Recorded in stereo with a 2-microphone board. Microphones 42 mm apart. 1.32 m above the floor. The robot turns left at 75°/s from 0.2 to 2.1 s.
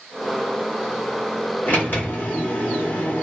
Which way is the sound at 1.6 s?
115° left.